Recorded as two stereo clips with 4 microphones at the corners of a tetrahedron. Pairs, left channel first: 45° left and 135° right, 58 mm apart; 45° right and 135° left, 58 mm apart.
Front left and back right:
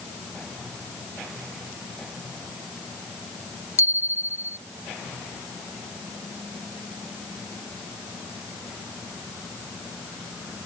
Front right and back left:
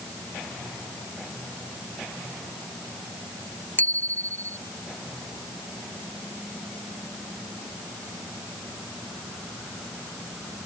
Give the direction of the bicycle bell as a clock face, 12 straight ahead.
12 o'clock.